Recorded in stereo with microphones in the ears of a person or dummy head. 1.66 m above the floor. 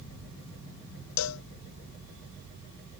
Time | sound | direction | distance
1.2 | a cowbell | 85° left | ?